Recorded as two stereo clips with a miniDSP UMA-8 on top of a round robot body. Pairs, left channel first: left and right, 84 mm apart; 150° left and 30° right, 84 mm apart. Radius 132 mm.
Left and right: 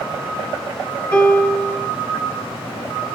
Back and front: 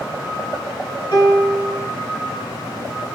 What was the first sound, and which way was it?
A piano, 160° left.